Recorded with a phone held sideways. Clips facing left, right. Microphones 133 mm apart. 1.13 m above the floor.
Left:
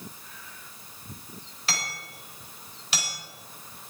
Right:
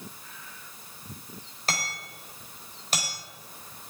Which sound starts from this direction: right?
Hammering, at 1.7 s.